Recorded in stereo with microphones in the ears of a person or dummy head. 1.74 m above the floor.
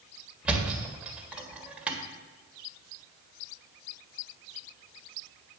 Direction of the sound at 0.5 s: 10° right (ahead or behind).